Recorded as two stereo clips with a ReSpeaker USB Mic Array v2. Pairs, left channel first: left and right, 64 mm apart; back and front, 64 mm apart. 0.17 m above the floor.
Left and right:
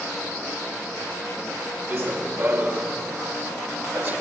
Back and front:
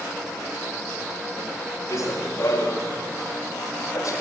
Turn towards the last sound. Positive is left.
turn(degrees=-145)